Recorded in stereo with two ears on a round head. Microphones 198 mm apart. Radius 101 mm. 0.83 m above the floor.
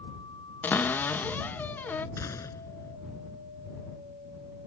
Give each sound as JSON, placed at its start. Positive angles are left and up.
{"t": 0.6, "sound": "a cupboard door", "side_deg": 10}
{"t": 2.2, "sound": "a gunshot", "side_deg": 15}